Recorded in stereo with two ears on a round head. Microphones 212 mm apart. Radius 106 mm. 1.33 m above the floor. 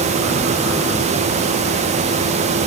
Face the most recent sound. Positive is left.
No sound to turn to.